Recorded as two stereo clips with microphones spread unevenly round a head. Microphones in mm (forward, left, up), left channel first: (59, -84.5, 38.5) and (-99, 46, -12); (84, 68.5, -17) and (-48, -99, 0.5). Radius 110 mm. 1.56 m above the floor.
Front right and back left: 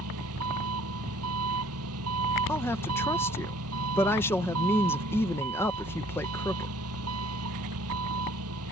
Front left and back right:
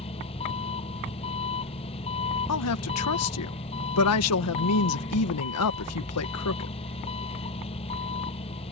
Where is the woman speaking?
40° left.